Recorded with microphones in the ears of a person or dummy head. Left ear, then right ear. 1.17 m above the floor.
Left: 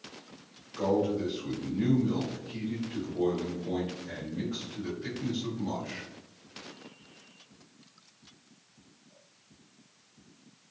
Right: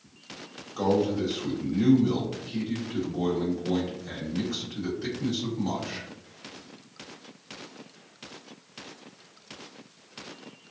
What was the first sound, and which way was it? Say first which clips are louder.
A man speaking: right 3 dB; 75° right (ahead or behind).